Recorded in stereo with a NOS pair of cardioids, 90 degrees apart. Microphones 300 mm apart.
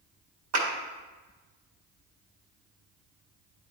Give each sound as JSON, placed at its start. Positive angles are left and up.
{"t": 0.5, "sound": "a clap", "azimuth_deg": -60, "distance_m": 1.8}